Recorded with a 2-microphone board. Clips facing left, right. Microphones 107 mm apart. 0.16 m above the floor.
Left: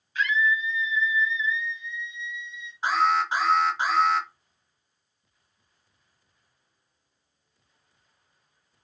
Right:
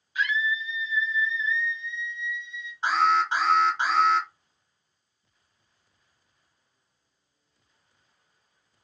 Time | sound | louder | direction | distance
0.1 | a scream | left 3 dB | 10° right (ahead or behind) | 1.6 m
2.8 | an alarm | even | 5° left (ahead or behind) | 2 m